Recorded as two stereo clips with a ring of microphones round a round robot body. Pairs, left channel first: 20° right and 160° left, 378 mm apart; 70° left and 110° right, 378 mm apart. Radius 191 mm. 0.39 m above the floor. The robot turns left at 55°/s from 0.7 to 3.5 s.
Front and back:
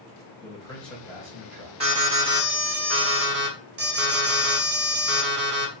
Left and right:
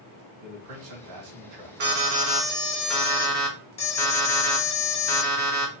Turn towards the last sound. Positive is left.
turn(degrees=125)